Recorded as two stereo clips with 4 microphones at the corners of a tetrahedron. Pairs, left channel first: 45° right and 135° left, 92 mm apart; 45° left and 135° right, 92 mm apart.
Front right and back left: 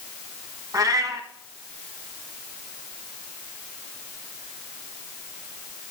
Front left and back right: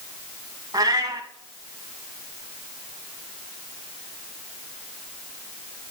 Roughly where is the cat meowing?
Behind.